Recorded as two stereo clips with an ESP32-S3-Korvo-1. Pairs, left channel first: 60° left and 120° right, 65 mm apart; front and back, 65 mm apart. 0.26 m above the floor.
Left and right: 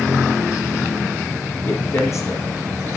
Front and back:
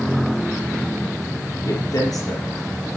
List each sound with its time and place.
1.6 s a man speaking: 15° left, 4.5 m